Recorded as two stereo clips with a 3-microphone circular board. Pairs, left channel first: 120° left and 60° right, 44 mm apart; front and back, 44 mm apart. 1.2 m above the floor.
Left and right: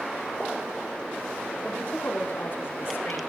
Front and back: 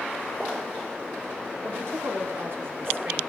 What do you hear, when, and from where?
1.6 s a woman speaking: straight behind, 2 m; by 3.2 s 145° left, 3.5 m